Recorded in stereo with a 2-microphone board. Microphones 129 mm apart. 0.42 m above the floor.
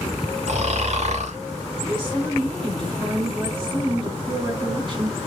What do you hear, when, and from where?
0.5 s snoring: 60° right (ahead or behind), 0.6 m
1.8 s a woman speaking: 40° right (ahead or behind), 1.5 m